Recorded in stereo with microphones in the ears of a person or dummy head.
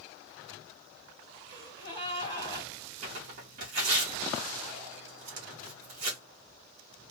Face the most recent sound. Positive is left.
turn(degrees=-45)  # may be behind; listen again after turning